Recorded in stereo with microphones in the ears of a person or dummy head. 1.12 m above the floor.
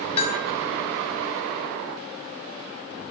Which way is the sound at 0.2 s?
30° left (ahead or behind).